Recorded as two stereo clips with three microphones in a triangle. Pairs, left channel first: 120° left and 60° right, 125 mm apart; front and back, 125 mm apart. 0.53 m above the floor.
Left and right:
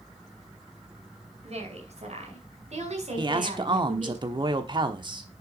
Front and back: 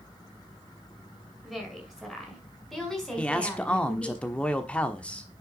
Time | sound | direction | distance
1.4 | a woman speaking | 95° right | 6 m
3.2 | a man speaking | 75° right | 1.2 m